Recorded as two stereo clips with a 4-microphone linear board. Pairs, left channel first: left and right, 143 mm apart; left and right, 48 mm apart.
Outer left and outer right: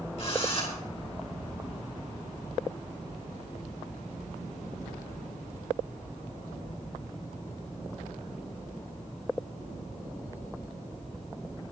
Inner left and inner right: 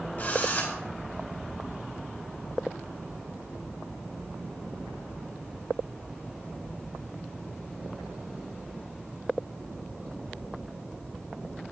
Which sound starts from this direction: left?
A drill, at 0.2 s.